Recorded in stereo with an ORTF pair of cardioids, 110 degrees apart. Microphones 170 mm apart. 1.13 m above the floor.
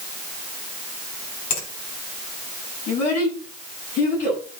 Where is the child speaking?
65° left, 6.5 m.